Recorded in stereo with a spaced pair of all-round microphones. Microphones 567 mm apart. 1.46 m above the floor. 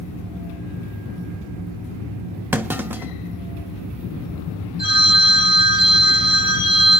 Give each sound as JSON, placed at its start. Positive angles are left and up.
{"t": 2.5, "sound": "a clunk", "side_deg": -5, "distance_m": 0.8}
{"t": 4.8, "sound": "a phone ringing", "side_deg": 15, "distance_m": 7.5}